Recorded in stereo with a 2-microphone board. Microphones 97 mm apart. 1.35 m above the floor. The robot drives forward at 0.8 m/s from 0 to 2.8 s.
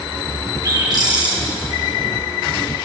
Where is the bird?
40° right (ahead or behind), 7 m; by 1.4 s 45° right (ahead or behind), 6.5 m.